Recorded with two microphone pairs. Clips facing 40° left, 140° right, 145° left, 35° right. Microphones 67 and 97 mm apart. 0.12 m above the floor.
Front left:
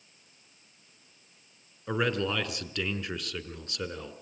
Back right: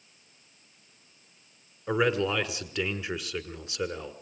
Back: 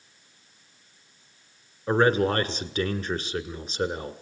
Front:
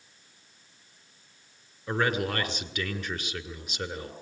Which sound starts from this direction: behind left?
A man speaking, at 1.9 s.